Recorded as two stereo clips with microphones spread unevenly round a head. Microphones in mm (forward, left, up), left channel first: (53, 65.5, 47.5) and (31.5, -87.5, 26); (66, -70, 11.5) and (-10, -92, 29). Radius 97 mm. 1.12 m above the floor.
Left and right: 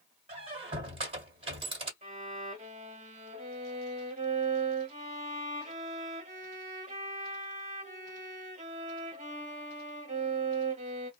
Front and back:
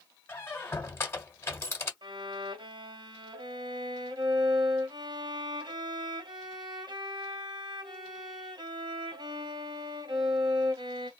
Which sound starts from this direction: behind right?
A violin, at 2.0 s.